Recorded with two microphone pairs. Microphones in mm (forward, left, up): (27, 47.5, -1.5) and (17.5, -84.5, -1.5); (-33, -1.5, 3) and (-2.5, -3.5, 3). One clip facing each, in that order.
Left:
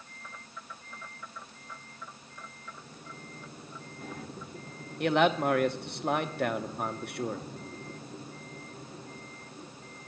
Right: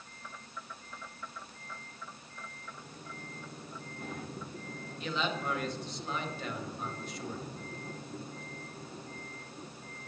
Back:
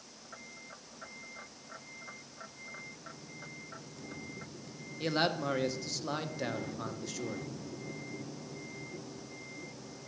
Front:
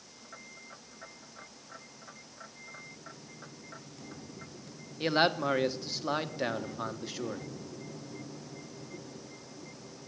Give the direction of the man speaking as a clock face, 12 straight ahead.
10 o'clock.